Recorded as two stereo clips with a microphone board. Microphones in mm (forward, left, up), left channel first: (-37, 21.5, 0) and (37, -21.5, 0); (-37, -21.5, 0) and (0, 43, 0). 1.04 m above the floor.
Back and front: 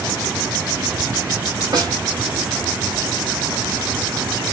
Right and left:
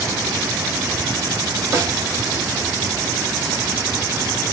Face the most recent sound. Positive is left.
turn(degrees=10)